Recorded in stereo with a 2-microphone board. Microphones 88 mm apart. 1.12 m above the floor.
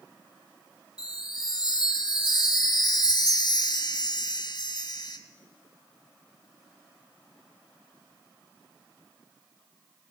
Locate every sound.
1.0 s a chime: 50° left (ahead or behind), 1.0 m